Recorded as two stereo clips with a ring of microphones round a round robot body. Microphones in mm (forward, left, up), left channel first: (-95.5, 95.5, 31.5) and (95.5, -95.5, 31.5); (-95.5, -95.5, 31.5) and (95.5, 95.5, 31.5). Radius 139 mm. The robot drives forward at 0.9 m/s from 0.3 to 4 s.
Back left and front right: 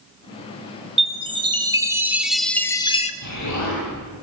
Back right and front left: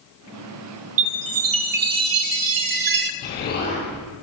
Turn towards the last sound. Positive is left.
turn(degrees=165)